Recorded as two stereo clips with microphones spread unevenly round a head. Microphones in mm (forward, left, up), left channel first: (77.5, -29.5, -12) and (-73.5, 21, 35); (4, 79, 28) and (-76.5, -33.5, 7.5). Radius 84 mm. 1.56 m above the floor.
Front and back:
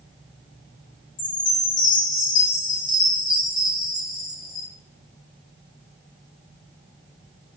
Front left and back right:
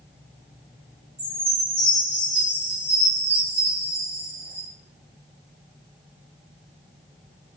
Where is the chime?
50° right, 0.8 m.